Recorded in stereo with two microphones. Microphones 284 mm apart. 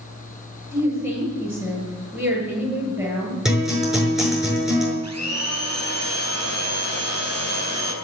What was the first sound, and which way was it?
A woman speaking, 5° right (ahead or behind).